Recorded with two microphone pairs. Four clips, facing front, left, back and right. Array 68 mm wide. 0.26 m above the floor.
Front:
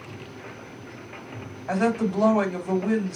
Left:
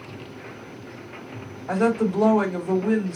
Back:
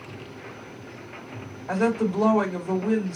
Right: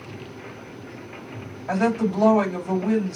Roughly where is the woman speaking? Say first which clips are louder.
Left 1 dB, even; ahead.